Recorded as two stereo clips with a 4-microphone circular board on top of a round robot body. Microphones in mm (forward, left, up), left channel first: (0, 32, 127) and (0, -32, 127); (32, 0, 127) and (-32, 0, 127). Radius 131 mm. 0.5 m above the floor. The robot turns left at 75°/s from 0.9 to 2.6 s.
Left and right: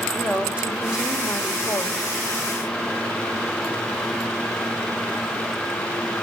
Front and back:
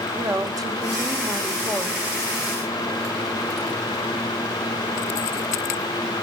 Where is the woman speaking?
160° right, 3 m; by 2.1 s 110° left, 3 m.